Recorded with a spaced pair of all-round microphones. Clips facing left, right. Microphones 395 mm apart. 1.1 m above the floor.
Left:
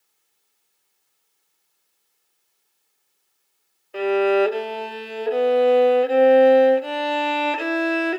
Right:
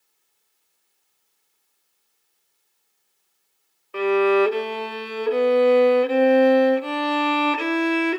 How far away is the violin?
About 0.6 m.